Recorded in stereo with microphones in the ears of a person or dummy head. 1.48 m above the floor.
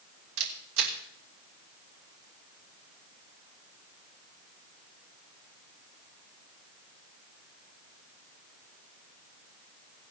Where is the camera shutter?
80° right, 2.5 m.